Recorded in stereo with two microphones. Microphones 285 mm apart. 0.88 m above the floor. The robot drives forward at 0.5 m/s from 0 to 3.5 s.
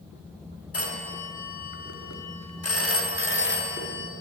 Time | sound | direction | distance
0.7 | a phone ringing | 55° left (ahead or behind) | 0.9 m